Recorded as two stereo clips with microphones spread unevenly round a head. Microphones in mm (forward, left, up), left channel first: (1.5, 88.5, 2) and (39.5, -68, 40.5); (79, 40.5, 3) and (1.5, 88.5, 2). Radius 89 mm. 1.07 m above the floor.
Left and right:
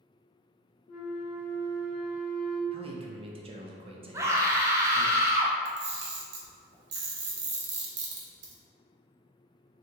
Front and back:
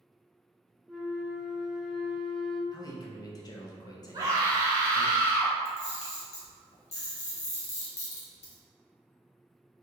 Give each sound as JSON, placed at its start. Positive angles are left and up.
{"t": 0.9, "sound": "a flute", "azimuth_deg": 60, "distance_m": 0.6}
{"t": 2.7, "sound": "a man speaking", "azimuth_deg": -20, "distance_m": 0.6}
{"t": 4.1, "sound": "a scream", "azimuth_deg": -155, "distance_m": 0.6}
{"t": 5.7, "sound": "a camera shutter", "azimuth_deg": -55, "distance_m": 0.9}